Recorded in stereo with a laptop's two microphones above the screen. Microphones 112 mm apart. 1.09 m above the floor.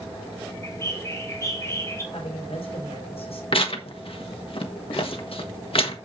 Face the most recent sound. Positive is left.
turn(degrees=60)  # may be behind; listen again after turning